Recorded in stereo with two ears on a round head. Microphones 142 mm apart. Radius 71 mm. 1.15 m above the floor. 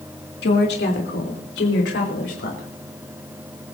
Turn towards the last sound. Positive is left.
turn(degrees=80)